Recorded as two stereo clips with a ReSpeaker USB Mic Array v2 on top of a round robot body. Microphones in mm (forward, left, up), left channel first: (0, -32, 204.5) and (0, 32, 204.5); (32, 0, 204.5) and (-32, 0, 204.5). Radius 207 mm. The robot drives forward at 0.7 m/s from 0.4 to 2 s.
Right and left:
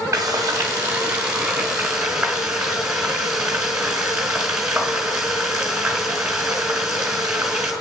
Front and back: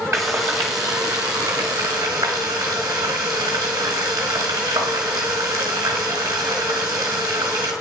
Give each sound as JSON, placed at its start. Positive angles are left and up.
{"t": 0.1, "sound": "frying", "azimuth_deg": 135, "distance_m": 0.6}